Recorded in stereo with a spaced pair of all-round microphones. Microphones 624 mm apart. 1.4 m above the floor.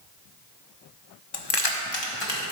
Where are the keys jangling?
40° left (ahead or behind), 0.6 m; by 2.5 s 45° left (ahead or behind), 1.7 m.